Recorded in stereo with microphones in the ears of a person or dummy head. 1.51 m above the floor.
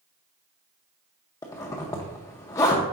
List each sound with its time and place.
1.4 s a zipper: 15° left (ahead or behind), 0.7 m